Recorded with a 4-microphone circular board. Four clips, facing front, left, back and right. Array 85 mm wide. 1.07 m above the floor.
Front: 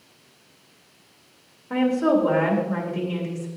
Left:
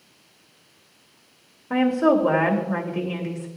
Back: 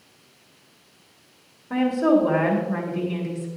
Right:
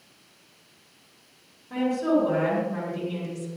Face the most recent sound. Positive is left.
turn(degrees=85)